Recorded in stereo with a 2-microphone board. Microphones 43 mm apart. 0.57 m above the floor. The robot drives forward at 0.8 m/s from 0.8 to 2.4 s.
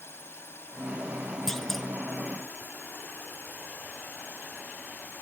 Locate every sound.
0.0 s a drone: 70° left (ahead or behind)
1.5 s a clunk: 10° left (ahead or behind)